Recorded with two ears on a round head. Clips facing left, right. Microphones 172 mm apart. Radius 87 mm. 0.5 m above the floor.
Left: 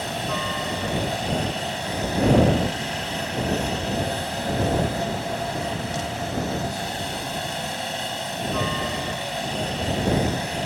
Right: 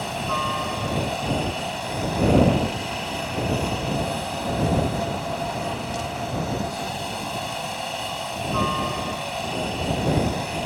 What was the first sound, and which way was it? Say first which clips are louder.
A helicopter: even; 10° left (ahead or behind).